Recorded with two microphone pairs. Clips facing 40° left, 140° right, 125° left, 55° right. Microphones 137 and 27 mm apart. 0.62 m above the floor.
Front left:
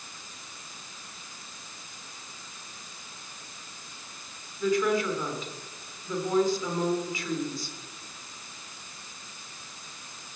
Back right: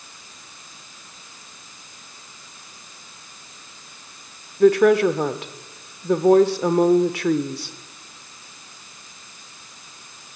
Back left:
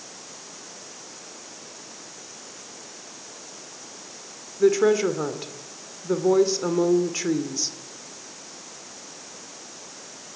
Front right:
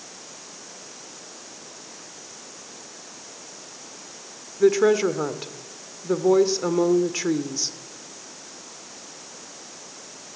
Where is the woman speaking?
135° right, 1.5 m.